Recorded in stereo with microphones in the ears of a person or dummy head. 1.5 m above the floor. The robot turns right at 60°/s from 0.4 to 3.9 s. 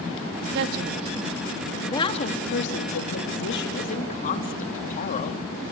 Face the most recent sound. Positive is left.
turn(degrees=135)